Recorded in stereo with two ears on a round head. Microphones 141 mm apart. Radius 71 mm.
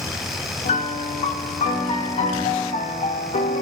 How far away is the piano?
About 1.4 m.